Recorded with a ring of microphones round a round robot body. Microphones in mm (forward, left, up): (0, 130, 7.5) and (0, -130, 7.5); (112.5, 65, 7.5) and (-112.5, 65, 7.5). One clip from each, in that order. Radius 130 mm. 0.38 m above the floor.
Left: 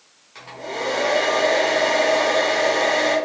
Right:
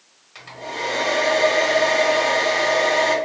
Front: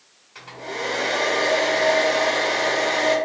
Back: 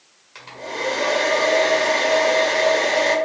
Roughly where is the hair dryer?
Behind.